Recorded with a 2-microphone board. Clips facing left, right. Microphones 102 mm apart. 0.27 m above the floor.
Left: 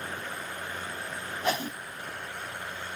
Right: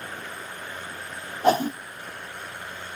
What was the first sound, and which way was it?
A whoosh, 40° right (ahead or behind).